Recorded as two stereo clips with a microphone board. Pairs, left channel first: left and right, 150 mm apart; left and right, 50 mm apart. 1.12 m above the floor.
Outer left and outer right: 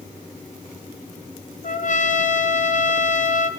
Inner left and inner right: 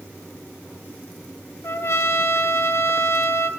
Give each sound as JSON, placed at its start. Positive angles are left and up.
{"t": 1.6, "sound": "a trumpet", "side_deg": 60, "distance_m": 0.7}